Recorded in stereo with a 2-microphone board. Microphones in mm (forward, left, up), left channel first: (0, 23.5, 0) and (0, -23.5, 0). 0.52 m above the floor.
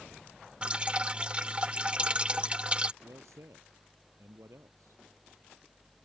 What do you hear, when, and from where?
0.6 s dripping: 25° right (ahead or behind)
3.0 s a man speaking: 80° right